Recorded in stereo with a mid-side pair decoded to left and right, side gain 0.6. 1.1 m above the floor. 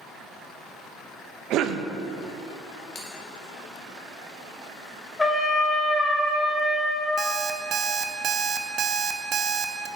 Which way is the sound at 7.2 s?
40° right.